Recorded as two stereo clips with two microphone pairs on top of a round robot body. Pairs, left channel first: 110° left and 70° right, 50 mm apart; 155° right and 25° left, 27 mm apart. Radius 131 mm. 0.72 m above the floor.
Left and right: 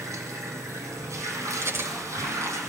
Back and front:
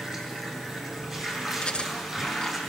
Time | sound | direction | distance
0.0 | running water | 45° right | 6.5 m
1.6 | cutlery clinking | 100° right | 7.5 m